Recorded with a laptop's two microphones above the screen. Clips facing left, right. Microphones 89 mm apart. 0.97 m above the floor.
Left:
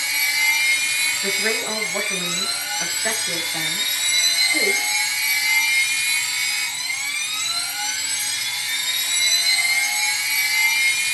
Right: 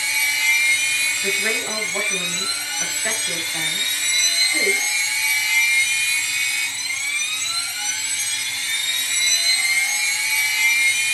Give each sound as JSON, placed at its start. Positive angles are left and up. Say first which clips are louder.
{"t": 0.0, "sound": "a machine running", "louder": "even", "side_deg": 15, "distance_m": 6.5}
{"t": 1.2, "sound": "a woman speaking", "louder": "left 1 dB", "side_deg": 10, "distance_m": 7.5}